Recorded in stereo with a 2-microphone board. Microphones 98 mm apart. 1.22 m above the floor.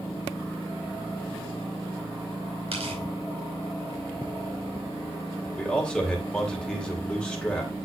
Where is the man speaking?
10° left (ahead or behind), 3 m.